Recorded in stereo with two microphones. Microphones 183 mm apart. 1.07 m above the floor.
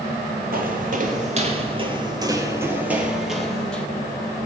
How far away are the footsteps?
About 1.9 m.